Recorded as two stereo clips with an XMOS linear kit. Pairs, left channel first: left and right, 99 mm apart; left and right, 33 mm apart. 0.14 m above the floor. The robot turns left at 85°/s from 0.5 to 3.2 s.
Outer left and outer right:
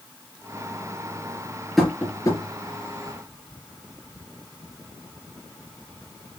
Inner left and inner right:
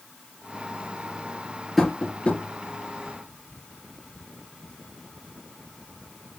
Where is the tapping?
Centre (ahead or behind), 3 m; by 2.4 s 45° left (ahead or behind), 3 m.